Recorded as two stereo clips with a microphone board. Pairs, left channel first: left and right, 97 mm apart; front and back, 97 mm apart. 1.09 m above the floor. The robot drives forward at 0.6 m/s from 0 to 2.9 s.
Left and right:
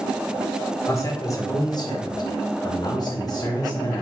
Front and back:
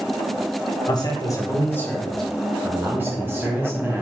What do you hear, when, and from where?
0.9 s a man speaking: 35° left, 1.2 m; by 4.0 s 120° left, 0.9 m